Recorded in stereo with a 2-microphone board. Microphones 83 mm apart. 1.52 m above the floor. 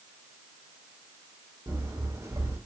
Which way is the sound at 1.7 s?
40° right (ahead or behind).